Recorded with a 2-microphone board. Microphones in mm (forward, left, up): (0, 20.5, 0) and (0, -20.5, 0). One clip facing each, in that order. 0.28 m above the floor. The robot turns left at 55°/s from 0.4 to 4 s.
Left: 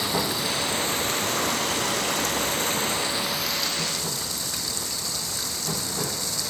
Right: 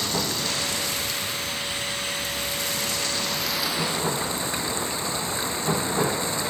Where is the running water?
170° left; by 6.5 s 30° right.